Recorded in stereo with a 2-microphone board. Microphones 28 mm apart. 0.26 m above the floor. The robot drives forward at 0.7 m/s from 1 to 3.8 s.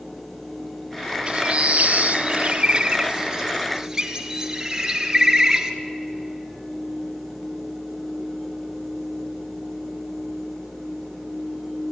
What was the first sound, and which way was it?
A bird, 40° right (ahead or behind).